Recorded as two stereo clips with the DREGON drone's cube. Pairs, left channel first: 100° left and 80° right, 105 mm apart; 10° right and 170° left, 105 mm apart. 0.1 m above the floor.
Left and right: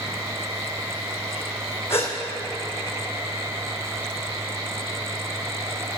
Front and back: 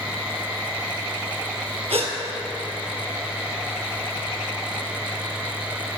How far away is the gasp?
About 1.6 m.